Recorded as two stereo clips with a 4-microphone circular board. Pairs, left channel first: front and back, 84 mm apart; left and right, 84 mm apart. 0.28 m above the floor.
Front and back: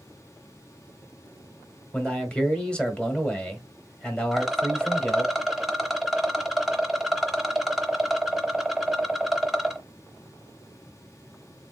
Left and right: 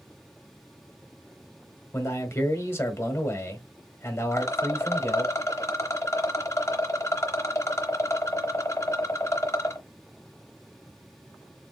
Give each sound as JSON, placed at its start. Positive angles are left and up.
{"t": 1.9, "sound": "a man speaking", "azimuth_deg": 70, "distance_m": 1.1}
{"t": 4.3, "sound": "a rattle", "azimuth_deg": 100, "distance_m": 0.8}